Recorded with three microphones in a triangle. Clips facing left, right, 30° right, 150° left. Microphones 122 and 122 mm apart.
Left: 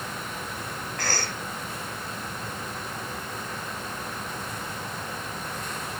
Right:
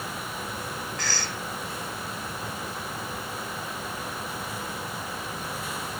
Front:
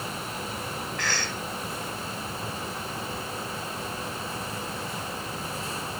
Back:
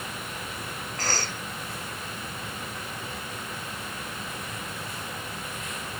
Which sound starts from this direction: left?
A cough, at 1.0 s.